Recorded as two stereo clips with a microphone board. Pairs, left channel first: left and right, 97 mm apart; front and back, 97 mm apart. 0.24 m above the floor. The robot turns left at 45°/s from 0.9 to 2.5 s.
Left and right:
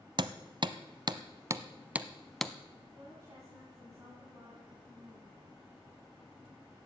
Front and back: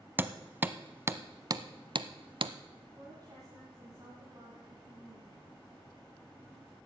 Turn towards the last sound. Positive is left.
turn(degrees=-140)